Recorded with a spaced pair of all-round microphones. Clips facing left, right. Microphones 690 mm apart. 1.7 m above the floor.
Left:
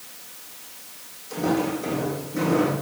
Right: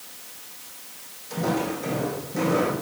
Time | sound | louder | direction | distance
1.3 | footsteps | left 3 dB | 25° right (ahead or behind) | 5 m